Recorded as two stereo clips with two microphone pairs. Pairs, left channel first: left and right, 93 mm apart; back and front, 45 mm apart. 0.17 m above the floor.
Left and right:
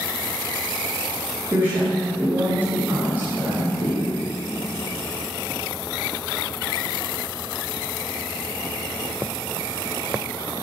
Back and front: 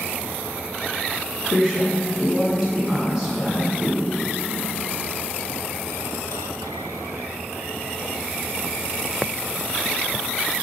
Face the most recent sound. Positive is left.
turn(degrees=-60)